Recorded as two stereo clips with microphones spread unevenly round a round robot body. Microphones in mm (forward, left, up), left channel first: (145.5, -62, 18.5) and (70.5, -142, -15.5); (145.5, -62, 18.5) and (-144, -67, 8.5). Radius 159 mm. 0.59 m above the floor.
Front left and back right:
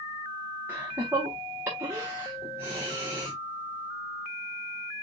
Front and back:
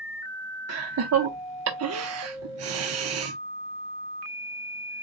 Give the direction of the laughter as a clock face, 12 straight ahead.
6 o'clock.